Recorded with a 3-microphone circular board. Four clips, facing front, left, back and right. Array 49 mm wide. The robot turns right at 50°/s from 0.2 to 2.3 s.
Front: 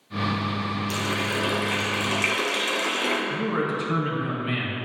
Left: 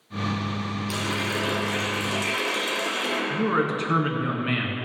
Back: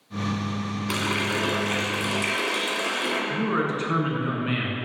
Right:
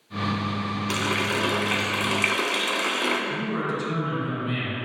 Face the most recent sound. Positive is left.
turn(degrees=110)